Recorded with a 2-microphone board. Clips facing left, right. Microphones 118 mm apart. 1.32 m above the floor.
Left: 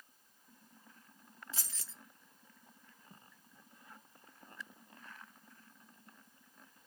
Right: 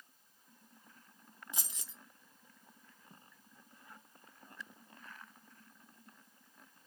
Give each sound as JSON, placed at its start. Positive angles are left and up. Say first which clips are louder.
{"t": 1.5, "sound": "keys jangling", "louder": "right 2 dB", "side_deg": -20, "distance_m": 0.6}